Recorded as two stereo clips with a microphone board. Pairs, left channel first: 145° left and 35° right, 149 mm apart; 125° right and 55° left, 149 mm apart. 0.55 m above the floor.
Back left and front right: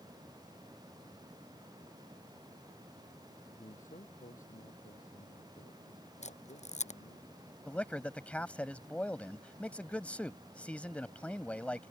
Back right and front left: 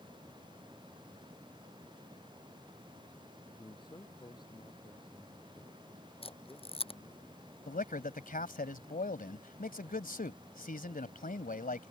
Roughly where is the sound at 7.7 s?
Behind right.